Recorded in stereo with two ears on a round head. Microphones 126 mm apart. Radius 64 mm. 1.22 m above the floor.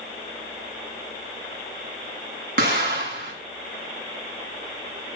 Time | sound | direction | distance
2.6 | an explosion | 65° right (ahead or behind) | 7 m